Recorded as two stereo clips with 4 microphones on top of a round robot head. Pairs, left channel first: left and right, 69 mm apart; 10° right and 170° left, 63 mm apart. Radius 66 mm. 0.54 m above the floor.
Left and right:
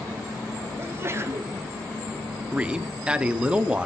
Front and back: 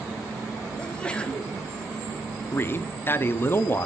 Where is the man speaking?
25° right, 0.7 m.